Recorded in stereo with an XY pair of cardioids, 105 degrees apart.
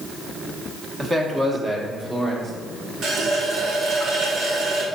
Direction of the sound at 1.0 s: 25° right.